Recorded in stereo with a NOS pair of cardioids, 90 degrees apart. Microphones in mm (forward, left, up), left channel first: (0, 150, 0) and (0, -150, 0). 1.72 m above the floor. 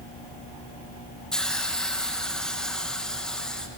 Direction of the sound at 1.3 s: Straight ahead.